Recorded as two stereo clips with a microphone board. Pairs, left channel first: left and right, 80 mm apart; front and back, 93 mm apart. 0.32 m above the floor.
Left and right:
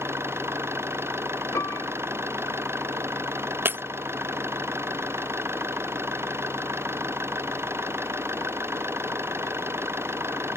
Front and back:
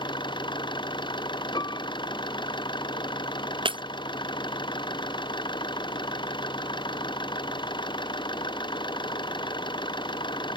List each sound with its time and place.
0.0 s an engine running: 30° right
1.6 s a piano: 40° left
3.6 s breaking glass: 155° right